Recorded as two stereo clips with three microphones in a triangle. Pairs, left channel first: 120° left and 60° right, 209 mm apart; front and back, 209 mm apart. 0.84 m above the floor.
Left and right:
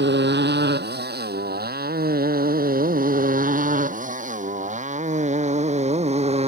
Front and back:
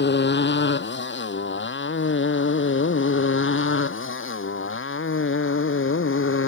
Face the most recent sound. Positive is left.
turn(degrees=0)